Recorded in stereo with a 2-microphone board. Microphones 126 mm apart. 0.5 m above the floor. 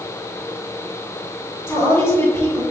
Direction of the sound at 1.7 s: 20° left (ahead or behind).